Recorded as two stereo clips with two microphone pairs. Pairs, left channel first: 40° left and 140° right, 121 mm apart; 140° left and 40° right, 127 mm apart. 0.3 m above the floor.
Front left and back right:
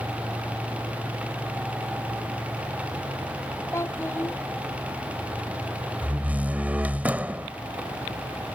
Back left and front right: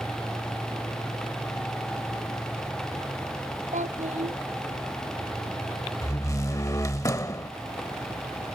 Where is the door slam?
160° left.